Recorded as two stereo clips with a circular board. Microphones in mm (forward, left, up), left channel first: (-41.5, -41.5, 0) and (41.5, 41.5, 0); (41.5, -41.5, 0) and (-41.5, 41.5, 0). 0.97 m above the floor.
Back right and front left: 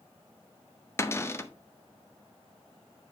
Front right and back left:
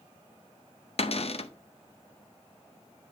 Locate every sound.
1.0 s a cupboard door: 70° right, 0.6 m